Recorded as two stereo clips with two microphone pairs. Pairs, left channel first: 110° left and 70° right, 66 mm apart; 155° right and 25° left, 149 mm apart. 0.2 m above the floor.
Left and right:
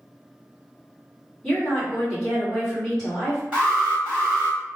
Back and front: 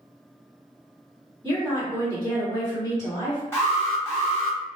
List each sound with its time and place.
1.4 s a woman speaking: straight behind, 1.6 m
3.5 s an alarm: 115° right, 1.8 m